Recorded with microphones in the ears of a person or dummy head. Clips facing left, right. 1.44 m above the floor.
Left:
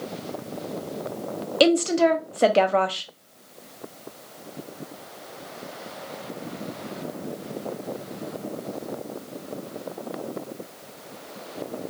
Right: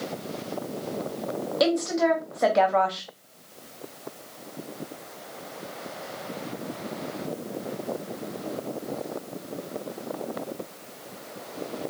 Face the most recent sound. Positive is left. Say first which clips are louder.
# left 5 dB
turn(degrees=45)  # may be behind; listen again after turning